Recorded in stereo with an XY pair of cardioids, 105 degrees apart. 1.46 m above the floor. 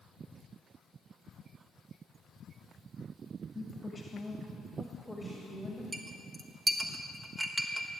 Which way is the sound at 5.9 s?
25° right.